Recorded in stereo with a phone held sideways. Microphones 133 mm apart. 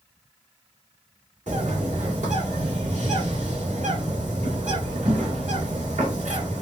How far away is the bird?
About 2.0 m.